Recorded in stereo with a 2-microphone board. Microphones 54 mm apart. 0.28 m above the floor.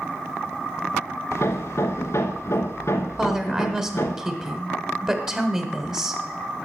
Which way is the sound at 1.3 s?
60° left (ahead or behind).